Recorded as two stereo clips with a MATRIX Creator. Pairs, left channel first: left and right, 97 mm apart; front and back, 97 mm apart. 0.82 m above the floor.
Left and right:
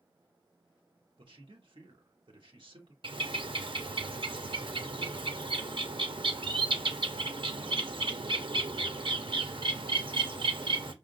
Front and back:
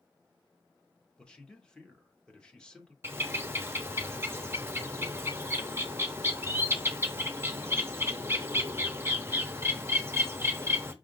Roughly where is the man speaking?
Right.